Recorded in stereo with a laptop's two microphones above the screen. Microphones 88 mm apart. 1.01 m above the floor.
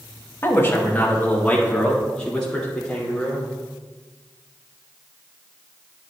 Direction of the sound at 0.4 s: 30° left (ahead or behind).